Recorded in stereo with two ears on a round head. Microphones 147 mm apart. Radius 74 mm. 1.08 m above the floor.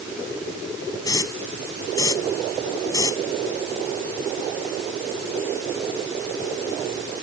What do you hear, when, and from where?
1.0 s a hiss: 20° left (ahead or behind)